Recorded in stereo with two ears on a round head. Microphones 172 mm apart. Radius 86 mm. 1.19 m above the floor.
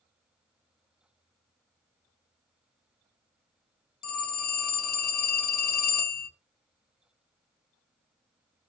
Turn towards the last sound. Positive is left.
turn(degrees=45)  # may be behind; listen again after turning